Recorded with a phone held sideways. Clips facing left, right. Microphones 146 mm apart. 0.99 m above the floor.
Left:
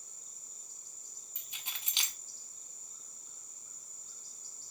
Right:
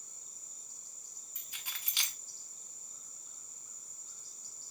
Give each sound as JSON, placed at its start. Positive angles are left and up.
{"t": 1.4, "sound": "keys jangling", "side_deg": 20, "distance_m": 0.6}